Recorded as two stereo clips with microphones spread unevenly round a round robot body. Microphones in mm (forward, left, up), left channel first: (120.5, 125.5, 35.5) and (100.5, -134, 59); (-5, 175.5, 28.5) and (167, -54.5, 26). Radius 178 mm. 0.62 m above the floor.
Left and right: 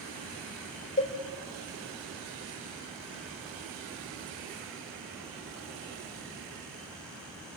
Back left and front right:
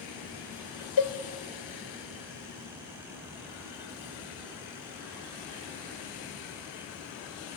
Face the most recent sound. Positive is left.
turn(degrees=155)